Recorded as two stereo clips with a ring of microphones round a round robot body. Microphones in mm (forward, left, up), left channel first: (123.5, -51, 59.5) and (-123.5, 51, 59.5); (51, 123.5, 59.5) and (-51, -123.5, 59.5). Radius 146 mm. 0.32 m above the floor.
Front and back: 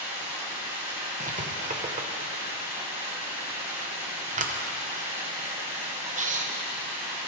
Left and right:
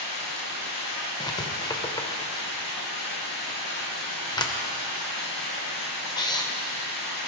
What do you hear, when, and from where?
0.0 s running water: 80° left, 3.5 m
1.2 s writing: 130° left, 1.2 m